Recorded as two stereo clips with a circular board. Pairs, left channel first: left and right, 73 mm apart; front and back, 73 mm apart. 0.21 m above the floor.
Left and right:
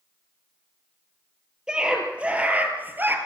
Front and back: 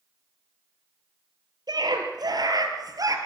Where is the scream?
170° right, 4 m; by 3.2 s 150° right, 3.5 m.